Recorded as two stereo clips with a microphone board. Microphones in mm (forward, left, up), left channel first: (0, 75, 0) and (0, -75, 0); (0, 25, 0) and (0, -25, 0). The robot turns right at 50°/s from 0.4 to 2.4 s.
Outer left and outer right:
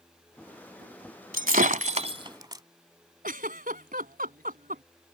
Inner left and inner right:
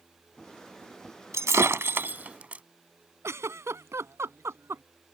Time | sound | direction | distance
1.3 | breaking glass | 80° right | ?
3.2 | a giggle | 70° right (ahead or behind) | ?